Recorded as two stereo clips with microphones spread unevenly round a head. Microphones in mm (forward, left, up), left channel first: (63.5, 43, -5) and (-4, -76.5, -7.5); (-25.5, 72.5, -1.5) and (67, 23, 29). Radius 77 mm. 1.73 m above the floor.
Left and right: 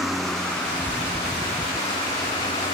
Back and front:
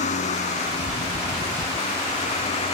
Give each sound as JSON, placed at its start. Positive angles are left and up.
{"t": 0.0, "sound": "a vehicle", "azimuth_deg": 150}